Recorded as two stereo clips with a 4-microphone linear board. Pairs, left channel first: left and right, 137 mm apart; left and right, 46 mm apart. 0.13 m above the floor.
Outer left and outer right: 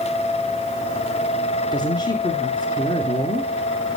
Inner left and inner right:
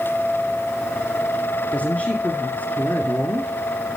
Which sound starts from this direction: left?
A woman speaking, at 1.7 s.